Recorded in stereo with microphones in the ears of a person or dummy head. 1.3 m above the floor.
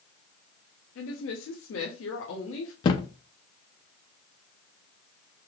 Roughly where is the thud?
Left.